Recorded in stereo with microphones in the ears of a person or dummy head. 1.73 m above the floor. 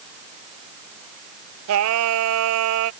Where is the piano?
No piano in this recording.